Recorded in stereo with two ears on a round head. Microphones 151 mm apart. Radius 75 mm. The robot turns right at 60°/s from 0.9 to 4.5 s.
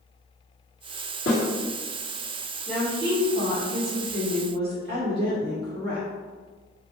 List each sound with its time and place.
1.3 s a snare drum: 65° left (ahead or behind), 2.0 m; by 1.4 s 55° left (ahead or behind), 2.0 m
2.7 s a woman speaking: 170° right, 1.8 m; by 6.1 s 60° right, 1.8 m